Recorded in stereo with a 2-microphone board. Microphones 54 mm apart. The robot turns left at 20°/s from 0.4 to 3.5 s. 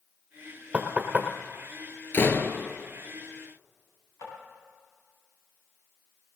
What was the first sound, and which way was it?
Knocking, 20° right (ahead or behind).